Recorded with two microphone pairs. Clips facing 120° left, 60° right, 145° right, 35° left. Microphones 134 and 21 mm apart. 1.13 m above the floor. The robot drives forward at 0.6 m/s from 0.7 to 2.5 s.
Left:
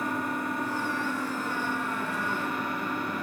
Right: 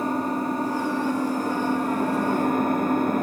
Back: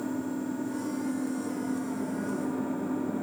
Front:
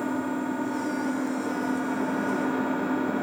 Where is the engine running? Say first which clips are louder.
Right 6 dB, front 4 dB; 5° right, 1.5 m; by 3.2 s 15° right, 0.5 m.